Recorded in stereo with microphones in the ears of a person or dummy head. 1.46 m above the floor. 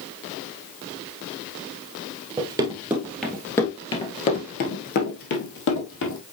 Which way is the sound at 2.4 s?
20° right (ahead or behind).